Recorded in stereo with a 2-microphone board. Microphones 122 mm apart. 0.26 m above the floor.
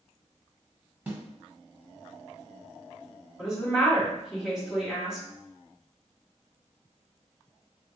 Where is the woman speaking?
5° right (ahead or behind), 1.6 m.